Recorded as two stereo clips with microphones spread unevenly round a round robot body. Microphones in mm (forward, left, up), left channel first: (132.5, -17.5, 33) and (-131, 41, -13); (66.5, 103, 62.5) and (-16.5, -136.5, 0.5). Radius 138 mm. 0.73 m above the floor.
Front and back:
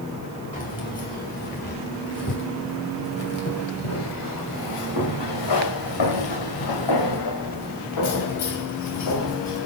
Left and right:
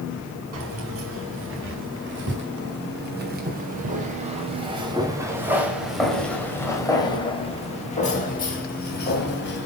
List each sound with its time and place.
0.5 s keys jangling: 75° right, 5 m; by 9.7 s 25° left, 4 m